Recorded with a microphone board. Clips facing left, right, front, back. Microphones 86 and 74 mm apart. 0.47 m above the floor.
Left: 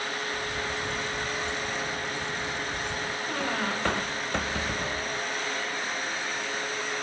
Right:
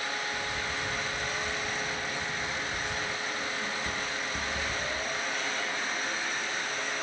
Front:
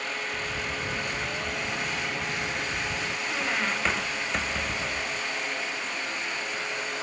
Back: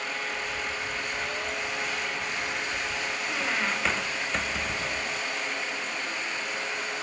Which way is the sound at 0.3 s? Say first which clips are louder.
Left 2 dB, even; 20° left.